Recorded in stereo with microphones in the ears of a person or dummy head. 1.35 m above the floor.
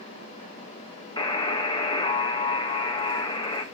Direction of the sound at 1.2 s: 25° left (ahead or behind).